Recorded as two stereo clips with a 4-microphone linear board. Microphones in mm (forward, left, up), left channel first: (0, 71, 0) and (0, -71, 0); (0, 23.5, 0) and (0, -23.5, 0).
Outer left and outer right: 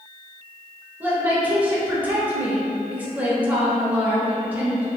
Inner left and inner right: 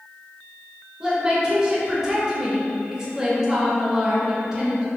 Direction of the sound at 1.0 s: 10° right (ahead or behind).